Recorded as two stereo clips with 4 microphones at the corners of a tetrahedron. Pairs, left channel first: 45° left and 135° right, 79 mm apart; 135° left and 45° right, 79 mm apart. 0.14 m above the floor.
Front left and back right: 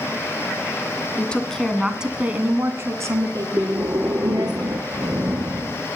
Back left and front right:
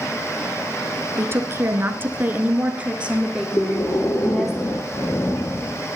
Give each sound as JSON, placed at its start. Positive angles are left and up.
{"t": 1.2, "sound": "a woman speaking", "azimuth_deg": -20, "distance_m": 1.3}
{"t": 3.6, "sound": "breathing", "azimuth_deg": 170, "distance_m": 1.0}